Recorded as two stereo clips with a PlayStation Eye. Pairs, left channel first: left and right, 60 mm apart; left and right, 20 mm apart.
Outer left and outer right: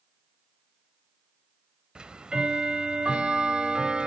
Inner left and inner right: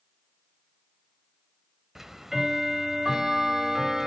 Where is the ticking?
15° right (ahead or behind), 1.6 m.